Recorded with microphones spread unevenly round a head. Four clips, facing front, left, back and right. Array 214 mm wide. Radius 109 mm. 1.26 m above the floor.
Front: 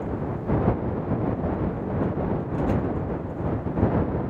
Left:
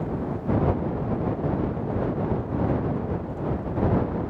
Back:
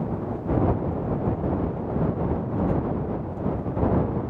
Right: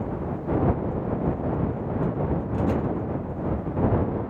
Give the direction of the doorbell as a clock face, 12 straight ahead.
No doorbell in this recording.